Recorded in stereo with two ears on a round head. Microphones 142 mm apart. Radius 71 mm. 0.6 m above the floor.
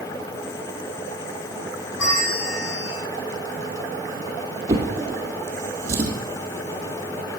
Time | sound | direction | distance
2.0 | a bell | 85° left | 8 m
4.7 | a drawer | 20° right (ahead or behind) | 4 m